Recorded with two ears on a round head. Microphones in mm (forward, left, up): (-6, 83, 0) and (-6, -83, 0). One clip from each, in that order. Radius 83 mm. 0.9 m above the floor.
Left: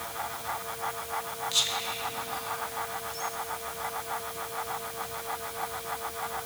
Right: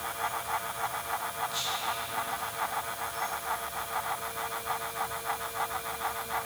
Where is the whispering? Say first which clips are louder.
Left 8 dB; 35° left (ahead or behind), 1.5 m.